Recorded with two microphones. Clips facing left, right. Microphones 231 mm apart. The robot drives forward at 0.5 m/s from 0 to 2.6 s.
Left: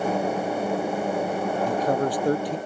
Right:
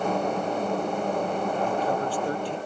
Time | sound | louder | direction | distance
1.7 | a man speaking | left 3 dB | 40° left (ahead or behind) | ?